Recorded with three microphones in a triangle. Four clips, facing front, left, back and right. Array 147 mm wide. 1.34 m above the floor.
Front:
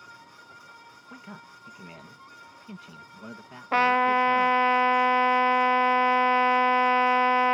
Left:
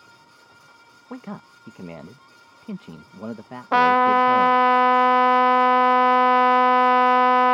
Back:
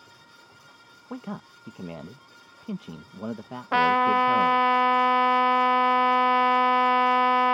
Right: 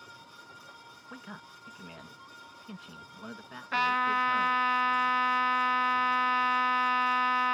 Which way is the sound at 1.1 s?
130° left.